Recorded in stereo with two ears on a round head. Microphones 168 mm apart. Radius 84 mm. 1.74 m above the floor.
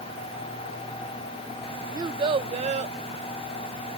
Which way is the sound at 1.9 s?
20° right (ahead or behind).